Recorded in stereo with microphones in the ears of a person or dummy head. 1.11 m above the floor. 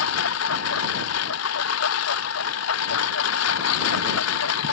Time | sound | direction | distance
0.0 | a lawn mower | 75° left (ahead or behind) | ?